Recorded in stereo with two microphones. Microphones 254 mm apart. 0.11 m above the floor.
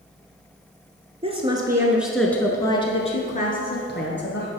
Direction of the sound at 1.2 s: 25° right (ahead or behind).